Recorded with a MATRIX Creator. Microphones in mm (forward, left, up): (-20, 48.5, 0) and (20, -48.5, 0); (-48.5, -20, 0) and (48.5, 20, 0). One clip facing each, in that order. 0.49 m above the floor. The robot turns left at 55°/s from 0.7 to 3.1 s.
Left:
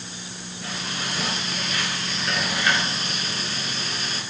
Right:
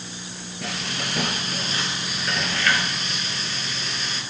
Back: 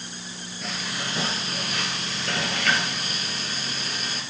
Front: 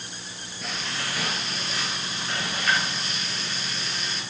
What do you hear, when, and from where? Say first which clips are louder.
0.6 s frying: right 1 dB, even; 70° right, 2.0 m; by 4.2 s 160° left, 2.0 m